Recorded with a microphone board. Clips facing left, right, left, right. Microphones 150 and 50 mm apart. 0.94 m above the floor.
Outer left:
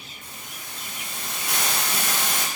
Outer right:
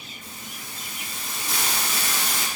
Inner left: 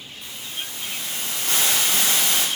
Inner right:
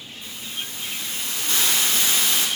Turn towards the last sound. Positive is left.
turn(degrees=80)